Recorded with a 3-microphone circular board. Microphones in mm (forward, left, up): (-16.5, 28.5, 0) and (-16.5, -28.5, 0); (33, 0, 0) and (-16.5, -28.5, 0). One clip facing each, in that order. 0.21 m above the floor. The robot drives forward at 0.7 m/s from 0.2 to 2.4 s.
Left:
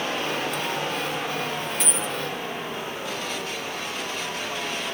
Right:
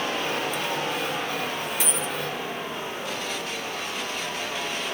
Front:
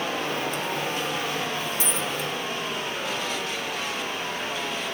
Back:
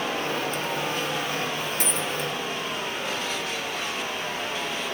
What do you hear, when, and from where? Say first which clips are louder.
1.8 s a dropped coin: even, even; 175° right, 1.6 m